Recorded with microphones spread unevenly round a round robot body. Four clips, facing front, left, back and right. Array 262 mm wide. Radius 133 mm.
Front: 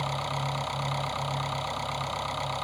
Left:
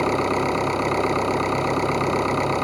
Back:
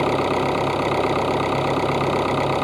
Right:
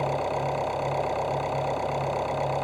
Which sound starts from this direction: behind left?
An engine running, at 0.0 s.